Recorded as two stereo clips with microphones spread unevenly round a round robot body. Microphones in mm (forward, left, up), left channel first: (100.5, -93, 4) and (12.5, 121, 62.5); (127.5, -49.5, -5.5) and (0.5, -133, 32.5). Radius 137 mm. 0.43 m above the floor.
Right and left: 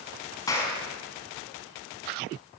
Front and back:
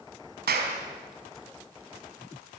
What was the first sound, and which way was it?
A clap, 140° right.